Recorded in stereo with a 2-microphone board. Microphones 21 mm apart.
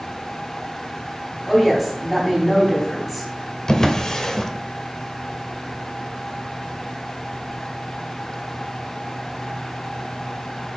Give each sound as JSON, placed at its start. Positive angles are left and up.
{"t": 1.5, "sound": "a woman speaking", "side_deg": 0, "distance_m": 2.5}
{"t": 3.7, "sound": "a drawer", "side_deg": 30, "distance_m": 0.9}